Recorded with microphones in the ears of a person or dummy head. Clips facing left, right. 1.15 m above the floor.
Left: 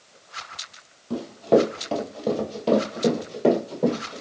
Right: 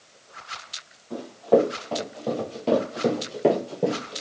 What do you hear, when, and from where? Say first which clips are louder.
1.1 s running footsteps: left 1 dB; 40° left (ahead or behind), 1.4 m; by 4.2 s 20° right (ahead or behind), 1.6 m